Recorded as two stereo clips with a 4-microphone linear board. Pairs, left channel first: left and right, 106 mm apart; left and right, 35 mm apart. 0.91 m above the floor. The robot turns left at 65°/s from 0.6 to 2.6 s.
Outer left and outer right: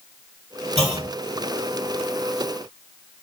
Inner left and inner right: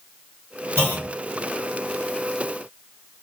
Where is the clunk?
80° right, 1.8 m; by 1.1 s 65° right (ahead or behind), 1.8 m.